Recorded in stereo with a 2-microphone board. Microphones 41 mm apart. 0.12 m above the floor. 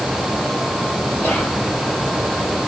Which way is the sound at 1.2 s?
40° left (ahead or behind).